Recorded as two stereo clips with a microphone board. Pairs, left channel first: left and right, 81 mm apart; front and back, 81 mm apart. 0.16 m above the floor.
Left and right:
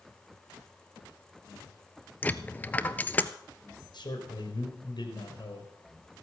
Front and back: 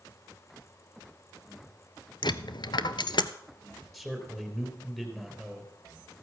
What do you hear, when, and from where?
2.2 s a dropped coin: 20° left, 0.6 m
3.9 s a man speaking: 90° left, 3.5 m